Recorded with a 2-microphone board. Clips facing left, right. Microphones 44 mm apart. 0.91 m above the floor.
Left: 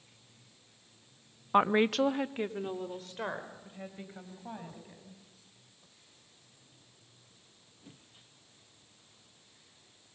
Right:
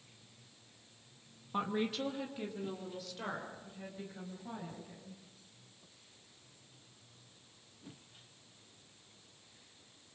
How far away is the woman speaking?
About 0.8 m.